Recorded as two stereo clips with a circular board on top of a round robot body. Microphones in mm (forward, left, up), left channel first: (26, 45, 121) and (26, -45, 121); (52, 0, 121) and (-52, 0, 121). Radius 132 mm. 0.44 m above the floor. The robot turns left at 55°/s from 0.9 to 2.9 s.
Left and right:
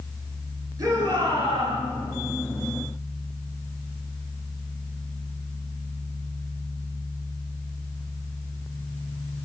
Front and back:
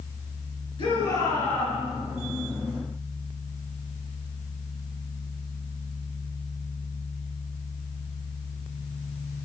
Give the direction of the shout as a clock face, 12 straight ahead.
1 o'clock.